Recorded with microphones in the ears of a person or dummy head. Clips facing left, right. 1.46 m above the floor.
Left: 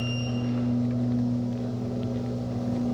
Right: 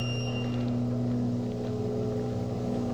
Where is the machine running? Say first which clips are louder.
Left 3 dB; 40° left (ahead or behind), 2.0 m.